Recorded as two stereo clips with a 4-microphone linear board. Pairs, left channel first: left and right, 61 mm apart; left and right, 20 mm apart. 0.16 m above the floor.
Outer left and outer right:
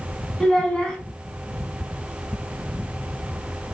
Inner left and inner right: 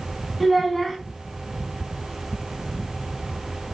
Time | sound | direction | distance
0.4 | a child speaking | 15° left (ahead or behind) | 0.7 m